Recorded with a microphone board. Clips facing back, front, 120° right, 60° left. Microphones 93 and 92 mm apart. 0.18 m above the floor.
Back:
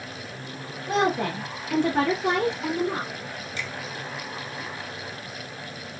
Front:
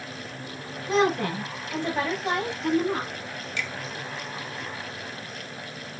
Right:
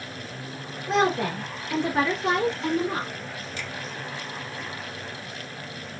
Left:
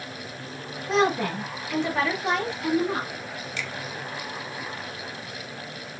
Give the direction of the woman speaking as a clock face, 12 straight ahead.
5 o'clock.